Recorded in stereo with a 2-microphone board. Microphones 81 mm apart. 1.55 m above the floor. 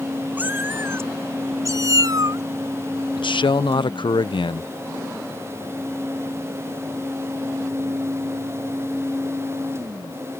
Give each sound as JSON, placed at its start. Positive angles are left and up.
{"t": 0.4, "sound": "a cat meowing", "side_deg": -20}
{"t": 3.2, "sound": "a man speaking", "side_deg": 75}